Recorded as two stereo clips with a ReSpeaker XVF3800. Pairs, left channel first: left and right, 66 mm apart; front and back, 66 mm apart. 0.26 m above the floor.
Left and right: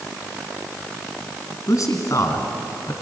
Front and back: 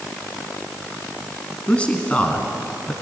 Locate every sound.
1.7 s a man speaking: 70° left, 2.5 m